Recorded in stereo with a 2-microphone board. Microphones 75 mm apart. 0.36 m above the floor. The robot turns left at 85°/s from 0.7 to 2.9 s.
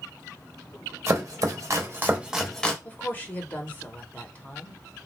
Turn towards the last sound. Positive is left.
turn(degrees=25)  # may be behind; listen again after turning